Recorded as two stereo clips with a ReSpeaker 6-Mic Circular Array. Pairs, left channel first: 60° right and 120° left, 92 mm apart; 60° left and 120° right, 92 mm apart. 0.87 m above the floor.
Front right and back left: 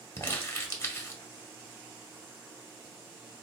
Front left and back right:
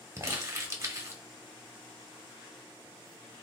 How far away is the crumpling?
About 0.7 m.